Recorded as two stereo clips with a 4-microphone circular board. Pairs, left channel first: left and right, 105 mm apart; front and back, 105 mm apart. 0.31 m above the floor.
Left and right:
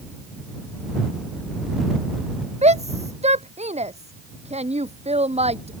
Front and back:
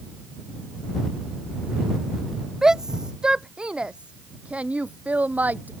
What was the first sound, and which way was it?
A shout, 95° right.